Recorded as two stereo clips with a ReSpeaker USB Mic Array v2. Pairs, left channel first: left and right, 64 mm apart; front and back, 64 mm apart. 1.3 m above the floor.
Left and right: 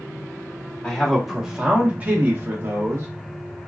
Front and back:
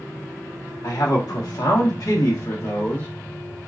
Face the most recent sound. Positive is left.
turn(degrees=-50)